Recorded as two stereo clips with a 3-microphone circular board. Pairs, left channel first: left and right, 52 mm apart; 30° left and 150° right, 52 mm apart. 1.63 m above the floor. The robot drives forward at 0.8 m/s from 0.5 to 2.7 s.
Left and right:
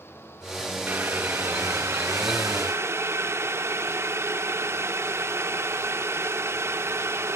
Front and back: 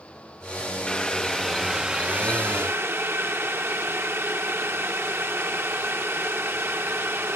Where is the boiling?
45° right, 1.5 m; by 7.3 s 115° right, 1.2 m.